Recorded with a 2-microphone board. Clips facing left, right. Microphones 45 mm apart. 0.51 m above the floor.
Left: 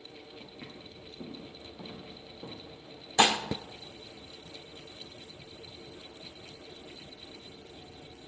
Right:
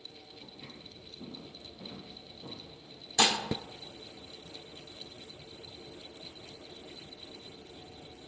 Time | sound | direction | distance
0.4 | footsteps | 80° left | 7.5 m
3.2 | dishes clattering | 25° left (ahead or behind) | 0.8 m